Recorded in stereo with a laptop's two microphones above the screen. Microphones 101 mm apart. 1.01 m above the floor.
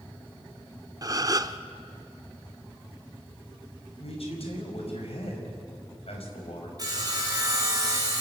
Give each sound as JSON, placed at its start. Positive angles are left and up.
{"t": 1.0, "sound": "a gasp", "side_deg": -35, "distance_m": 0.7}
{"t": 4.0, "sound": "a man speaking", "side_deg": 70, "distance_m": 5.0}
{"t": 6.8, "sound": "sawing", "side_deg": -40, "distance_m": 4.0}